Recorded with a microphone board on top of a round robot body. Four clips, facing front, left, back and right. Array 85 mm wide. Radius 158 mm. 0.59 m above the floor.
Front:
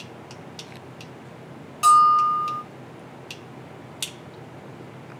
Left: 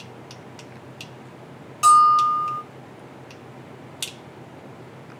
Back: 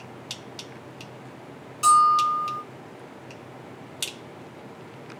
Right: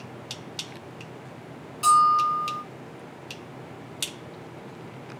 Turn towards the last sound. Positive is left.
turn(degrees=55)